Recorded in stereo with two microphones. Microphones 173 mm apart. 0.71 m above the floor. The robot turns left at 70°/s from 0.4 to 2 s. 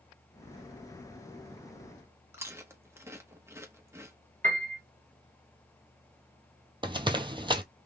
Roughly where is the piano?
Right.